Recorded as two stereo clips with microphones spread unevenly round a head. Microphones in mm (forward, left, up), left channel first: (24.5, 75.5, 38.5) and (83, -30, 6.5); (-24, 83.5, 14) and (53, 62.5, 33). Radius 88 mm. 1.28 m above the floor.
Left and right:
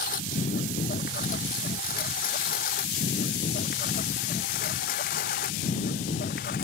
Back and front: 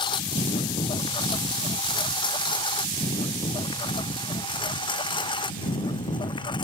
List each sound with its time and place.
0.0 s a lawn mower: 145° left